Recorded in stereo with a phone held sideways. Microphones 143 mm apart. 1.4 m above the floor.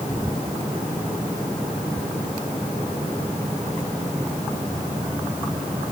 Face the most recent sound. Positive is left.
No sound to turn to.